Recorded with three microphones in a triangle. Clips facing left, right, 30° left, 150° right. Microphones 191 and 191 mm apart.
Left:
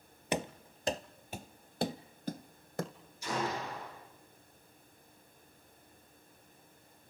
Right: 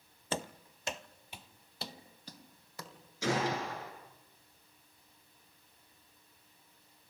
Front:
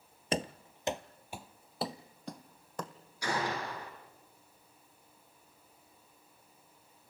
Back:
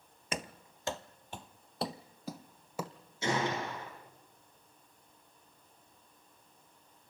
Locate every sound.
0.3 s running footsteps: 35° left, 0.7 m; by 2.9 s 130° left, 1.7 m
3.2 s a gunshot: 80° right, 8 m